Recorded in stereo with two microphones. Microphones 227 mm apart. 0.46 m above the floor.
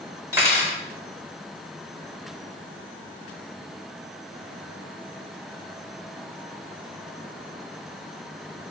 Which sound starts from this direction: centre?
Cutlery clinking, at 0.3 s.